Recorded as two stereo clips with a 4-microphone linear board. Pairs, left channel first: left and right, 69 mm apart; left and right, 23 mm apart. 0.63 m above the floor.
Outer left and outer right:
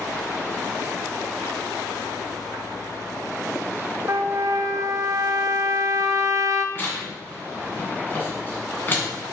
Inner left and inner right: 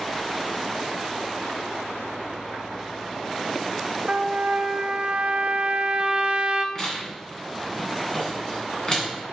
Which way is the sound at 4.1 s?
50° right (ahead or behind).